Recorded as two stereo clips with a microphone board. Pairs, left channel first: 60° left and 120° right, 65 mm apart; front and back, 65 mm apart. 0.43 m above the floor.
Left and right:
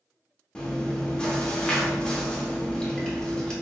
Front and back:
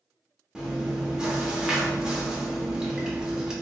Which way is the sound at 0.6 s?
115° left.